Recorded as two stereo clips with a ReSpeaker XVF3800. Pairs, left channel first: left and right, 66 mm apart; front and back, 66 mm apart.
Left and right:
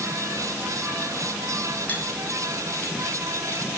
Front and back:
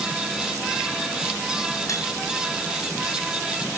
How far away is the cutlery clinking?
About 3.5 m.